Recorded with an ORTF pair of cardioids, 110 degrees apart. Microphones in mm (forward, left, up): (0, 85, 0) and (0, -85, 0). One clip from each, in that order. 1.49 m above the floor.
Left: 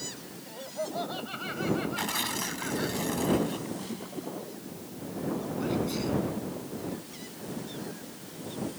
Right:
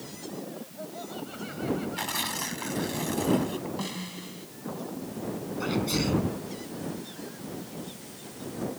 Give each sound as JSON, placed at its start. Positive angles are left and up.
{"t": 0.5, "sound": "laughter", "azimuth_deg": 50}
{"t": 2.0, "sound": "tearing paper", "azimuth_deg": -5}
{"t": 3.8, "sound": "a snare drum", "azimuth_deg": -60}
{"t": 5.6, "sound": "a sneeze", "azimuth_deg": -50}